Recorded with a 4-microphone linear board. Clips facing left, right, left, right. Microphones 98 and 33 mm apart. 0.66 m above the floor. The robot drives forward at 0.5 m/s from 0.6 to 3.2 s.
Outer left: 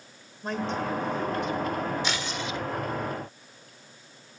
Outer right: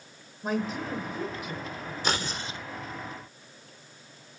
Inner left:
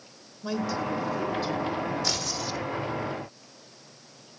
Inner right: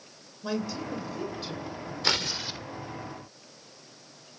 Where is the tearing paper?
45° right (ahead or behind), 0.8 m; by 2.6 s 30° right (ahead or behind), 1.0 m.